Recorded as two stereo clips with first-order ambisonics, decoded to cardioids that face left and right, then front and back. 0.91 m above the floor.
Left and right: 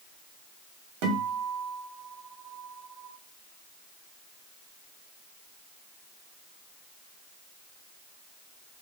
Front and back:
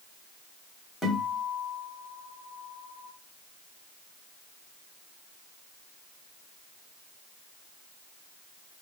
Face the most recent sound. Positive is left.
turn(degrees=-85)